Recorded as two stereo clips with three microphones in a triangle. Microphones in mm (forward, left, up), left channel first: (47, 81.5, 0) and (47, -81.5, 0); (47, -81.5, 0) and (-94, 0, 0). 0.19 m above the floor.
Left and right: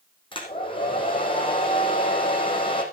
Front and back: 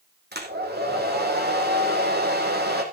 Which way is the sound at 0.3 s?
150° left.